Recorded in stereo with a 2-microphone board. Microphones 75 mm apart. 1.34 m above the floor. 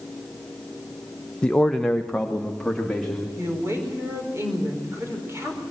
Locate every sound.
1.4 s a man speaking: 15° left (ahead or behind), 0.6 m; by 3.3 s 5° left (ahead or behind), 3 m
3.4 s a woman speaking: 35° right (ahead or behind), 4 m